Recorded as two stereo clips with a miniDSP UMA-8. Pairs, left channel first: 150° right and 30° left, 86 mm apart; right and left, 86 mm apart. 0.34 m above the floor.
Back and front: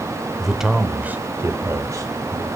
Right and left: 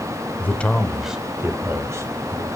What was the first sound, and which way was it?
A man speaking, 65° right.